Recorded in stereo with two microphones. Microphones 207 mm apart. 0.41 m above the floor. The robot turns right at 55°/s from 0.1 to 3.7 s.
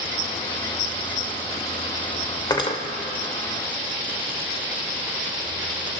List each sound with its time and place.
2.5 s cutlery clinking: 20° left (ahead or behind), 0.6 m; by 2.8 s 30° left (ahead or behind), 0.6 m